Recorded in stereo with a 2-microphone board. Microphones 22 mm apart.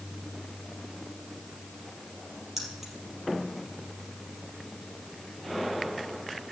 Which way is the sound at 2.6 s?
10° right (ahead or behind).